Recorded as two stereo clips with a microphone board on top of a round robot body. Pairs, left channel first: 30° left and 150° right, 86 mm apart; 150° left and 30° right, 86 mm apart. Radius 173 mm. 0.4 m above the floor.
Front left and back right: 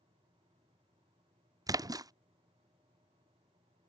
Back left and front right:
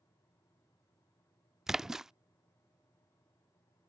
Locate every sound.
1.7 s a splash: 115° right